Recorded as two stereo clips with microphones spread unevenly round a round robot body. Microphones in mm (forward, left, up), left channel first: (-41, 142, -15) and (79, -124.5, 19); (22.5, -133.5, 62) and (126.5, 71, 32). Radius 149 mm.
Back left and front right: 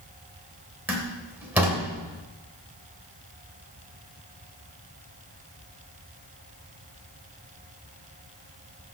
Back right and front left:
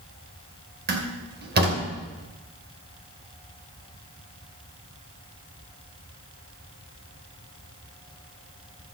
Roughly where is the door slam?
Ahead.